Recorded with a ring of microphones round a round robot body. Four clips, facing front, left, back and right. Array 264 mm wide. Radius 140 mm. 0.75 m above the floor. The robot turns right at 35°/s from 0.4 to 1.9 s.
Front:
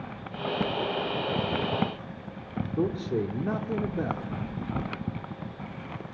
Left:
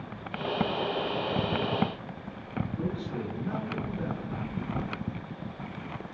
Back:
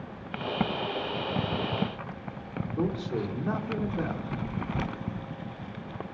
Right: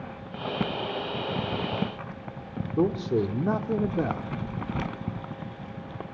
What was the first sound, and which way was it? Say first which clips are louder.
A man speaking: right 14 dB, front 2 dB; 70° right.